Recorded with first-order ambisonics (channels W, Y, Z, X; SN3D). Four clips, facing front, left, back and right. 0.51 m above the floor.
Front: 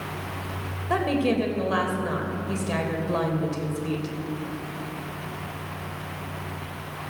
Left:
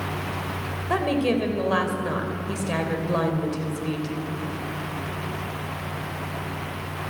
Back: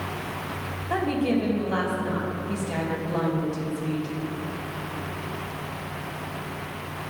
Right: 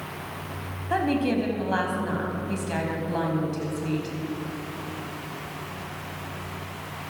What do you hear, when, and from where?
0.9 s a woman speaking: 65° left, 2.5 m